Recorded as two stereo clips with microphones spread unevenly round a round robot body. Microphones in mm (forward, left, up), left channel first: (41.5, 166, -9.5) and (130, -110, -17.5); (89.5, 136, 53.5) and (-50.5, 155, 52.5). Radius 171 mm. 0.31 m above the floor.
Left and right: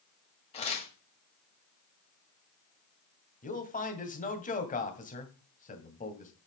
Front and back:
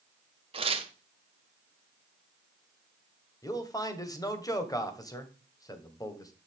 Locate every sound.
0.5 s tearing paper: 170° left, 1.4 m
3.4 s a man speaking: 50° left, 2 m